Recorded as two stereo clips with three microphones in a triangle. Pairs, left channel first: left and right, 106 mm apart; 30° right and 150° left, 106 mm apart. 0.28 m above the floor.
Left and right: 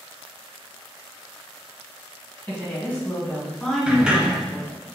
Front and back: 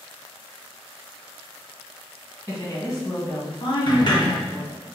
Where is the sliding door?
10° right, 0.8 m.